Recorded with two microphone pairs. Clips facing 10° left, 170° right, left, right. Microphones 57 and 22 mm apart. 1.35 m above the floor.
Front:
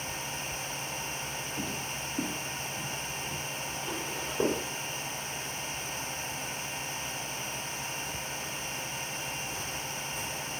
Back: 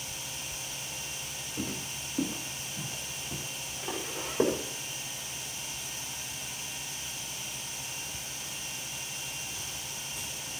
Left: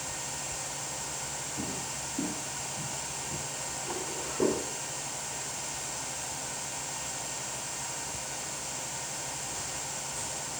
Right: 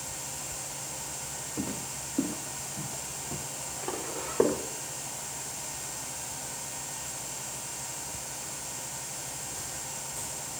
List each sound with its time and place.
1.6 s footsteps: 80° right, 3.5 m; by 4.6 s 95° right, 8 m